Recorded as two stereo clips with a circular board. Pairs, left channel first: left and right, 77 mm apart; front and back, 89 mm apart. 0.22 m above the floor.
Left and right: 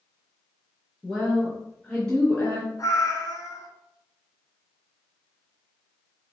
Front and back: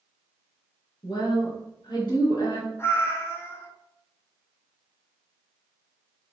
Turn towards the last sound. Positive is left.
turn(degrees=55)